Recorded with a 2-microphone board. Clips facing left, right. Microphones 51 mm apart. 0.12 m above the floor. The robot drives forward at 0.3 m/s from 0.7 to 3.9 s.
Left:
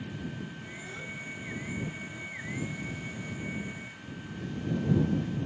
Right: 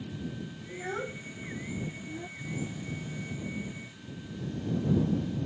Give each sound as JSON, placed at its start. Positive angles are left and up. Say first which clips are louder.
{"t": 0.7, "sound": "a child speaking", "louder": "right 5 dB", "side_deg": -45}
{"t": 2.4, "sound": "a phone buzzing", "louder": "left 3 dB", "side_deg": -5}